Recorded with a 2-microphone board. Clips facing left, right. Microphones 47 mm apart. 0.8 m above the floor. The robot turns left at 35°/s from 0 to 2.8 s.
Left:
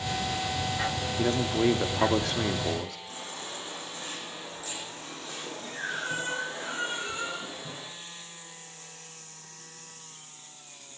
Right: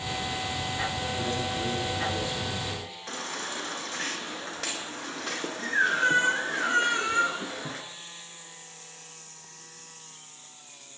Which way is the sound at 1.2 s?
140° left.